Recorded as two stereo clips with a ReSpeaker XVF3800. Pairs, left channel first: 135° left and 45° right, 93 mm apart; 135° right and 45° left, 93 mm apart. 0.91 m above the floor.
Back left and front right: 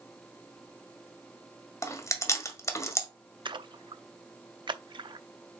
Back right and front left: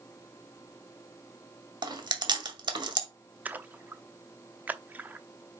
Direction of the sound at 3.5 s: 25° right.